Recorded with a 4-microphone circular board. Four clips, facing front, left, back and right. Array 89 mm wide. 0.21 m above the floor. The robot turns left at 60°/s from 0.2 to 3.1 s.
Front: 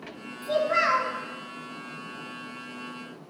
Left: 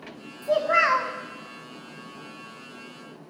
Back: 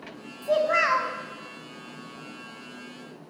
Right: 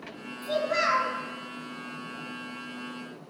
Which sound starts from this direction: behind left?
A child speaking, at 0.4 s.